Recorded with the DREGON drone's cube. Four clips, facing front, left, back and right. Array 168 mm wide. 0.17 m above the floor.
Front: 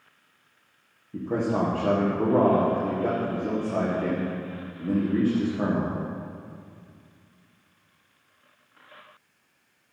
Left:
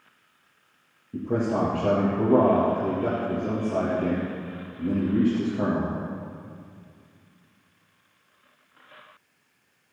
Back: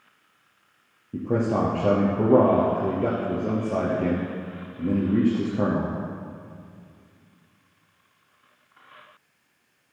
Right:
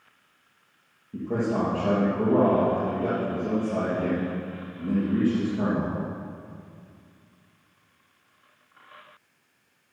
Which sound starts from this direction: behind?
A man speaking, at 1.1 s.